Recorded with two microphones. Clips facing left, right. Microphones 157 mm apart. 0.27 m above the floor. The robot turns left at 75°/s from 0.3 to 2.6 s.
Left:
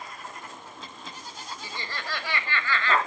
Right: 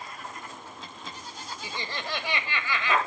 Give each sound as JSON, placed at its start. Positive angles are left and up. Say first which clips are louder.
{"t": 1.6, "sound": "laughter", "louder": "right 2 dB", "side_deg": -15, "distance_m": 1.3}